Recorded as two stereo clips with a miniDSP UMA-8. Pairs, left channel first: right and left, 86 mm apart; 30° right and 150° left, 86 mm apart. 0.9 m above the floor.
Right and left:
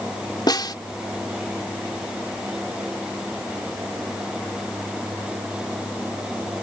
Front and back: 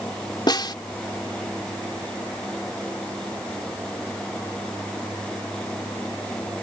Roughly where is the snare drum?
Ahead right.